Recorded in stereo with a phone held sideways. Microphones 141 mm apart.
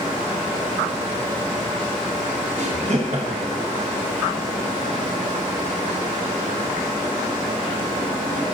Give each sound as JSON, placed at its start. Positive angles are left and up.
{"t": 2.6, "sound": "laughter", "side_deg": -55, "distance_m": 0.9}